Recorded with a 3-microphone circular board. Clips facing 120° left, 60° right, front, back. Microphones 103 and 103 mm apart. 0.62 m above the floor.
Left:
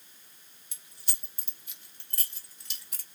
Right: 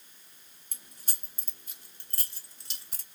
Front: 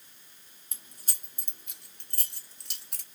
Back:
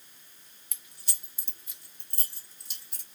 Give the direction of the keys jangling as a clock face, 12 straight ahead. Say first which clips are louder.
Right 2 dB, front 2 dB; 1 o'clock.